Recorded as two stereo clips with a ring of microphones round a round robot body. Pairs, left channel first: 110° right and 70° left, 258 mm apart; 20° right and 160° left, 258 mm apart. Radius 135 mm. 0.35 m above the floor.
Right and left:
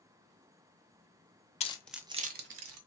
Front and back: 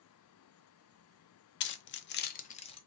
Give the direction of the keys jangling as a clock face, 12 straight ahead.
2 o'clock.